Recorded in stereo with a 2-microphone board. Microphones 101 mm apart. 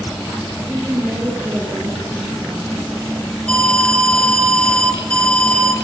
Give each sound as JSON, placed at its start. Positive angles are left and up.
{"t": 0.6, "sound": "a woman speaking", "side_deg": -20, "distance_m": 5.0}
{"t": 3.5, "sound": "an alarm", "side_deg": 10, "distance_m": 2.5}